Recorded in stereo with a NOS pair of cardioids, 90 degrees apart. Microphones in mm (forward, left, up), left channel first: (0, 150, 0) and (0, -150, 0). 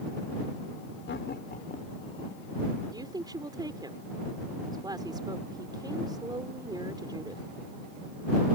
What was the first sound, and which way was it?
Laughter, 40° left.